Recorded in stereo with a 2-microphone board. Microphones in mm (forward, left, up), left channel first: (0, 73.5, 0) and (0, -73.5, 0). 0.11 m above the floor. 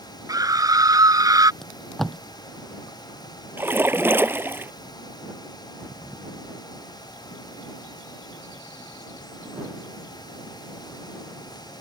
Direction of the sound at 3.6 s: 15° right (ahead or behind).